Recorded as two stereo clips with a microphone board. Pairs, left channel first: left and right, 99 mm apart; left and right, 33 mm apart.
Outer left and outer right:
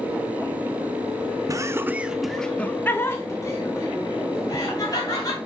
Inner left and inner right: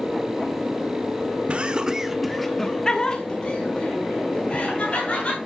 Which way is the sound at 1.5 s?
35° right (ahead or behind).